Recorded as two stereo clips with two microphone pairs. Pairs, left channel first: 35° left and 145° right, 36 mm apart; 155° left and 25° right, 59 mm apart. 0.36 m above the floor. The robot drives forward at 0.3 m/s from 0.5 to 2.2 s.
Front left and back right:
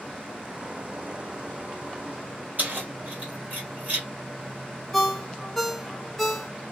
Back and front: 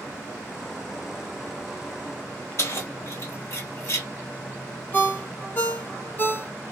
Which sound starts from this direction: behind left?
A ringtone, at 4.9 s.